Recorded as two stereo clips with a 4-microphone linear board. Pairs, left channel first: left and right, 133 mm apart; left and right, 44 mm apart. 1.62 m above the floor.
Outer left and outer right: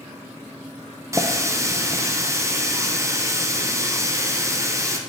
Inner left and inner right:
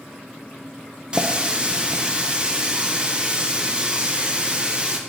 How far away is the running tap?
About 0.6 m.